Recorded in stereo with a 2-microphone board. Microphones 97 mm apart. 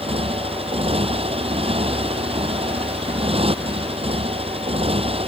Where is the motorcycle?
90° right.